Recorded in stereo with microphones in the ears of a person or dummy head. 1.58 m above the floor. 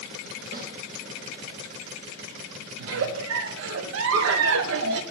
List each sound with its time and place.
0.5 s a snare drum: 45° right (ahead or behind), 1.7 m
2.8 s a giggle: 70° right (ahead or behind), 0.5 m